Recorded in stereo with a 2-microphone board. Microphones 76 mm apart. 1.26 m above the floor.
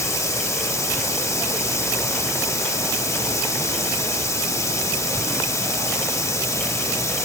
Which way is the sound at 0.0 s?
40° left (ahead or behind).